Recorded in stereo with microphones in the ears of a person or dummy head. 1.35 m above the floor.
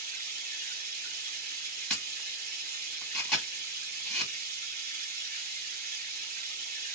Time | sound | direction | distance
0.0 | running water | 50° right (ahead or behind) | 0.8 m
1.9 | a camera shutter | 5° left (ahead or behind) | 1.4 m